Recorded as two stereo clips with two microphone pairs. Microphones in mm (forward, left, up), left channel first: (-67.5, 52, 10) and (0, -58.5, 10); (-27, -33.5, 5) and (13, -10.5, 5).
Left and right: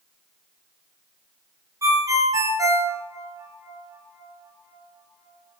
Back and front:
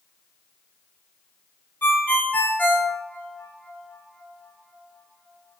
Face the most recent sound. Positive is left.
turn(degrees=-115)